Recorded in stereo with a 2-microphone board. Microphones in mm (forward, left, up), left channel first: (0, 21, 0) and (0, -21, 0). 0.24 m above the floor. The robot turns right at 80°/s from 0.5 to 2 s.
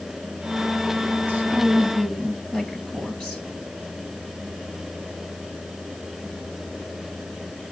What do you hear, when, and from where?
1.3 s a woman speaking: 45° right, 4.5 m; by 3.4 s 15° left, 4.5 m